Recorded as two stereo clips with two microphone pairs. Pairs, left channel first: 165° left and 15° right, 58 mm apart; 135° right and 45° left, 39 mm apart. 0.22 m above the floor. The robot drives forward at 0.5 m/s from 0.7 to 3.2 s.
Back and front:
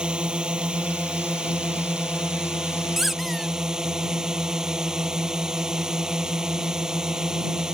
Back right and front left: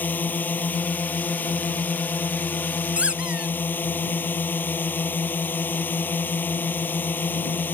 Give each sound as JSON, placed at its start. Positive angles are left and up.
{"t": 0.0, "sound": "a drone", "azimuth_deg": -90}
{"t": 3.0, "sound": "a squeak", "azimuth_deg": 60}